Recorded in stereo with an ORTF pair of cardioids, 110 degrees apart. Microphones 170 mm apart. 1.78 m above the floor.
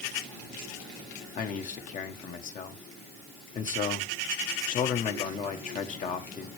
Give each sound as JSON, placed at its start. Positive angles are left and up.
{"t": 1.4, "sound": "a man speaking", "azimuth_deg": 50, "distance_m": 1.5}